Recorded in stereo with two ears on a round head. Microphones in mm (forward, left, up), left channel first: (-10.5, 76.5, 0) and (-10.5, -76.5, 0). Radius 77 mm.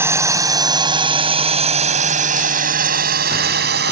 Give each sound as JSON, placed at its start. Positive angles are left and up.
{"t": 0.0, "sound": "a drone", "side_deg": -15}